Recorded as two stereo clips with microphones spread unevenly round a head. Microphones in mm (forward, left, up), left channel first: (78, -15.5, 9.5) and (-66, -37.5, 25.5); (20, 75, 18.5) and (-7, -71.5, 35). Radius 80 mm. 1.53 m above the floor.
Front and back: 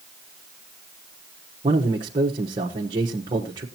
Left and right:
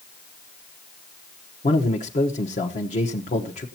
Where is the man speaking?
130° left, 1.3 m.